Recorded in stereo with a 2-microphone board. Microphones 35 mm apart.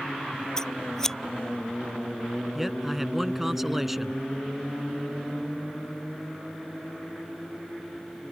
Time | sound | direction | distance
0.6 | scissors | 15° left (ahead or behind) | ?
2.5 | a man speaking | 5° right (ahead or behind) | ?